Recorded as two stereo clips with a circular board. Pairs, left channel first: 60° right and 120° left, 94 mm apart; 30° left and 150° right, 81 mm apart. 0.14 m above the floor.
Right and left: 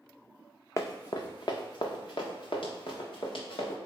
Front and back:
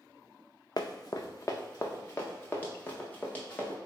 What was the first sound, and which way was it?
Running footsteps, 5° right.